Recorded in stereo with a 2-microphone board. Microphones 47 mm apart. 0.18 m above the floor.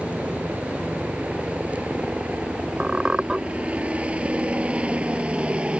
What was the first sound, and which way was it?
A helicopter, 30° right (ahead or behind).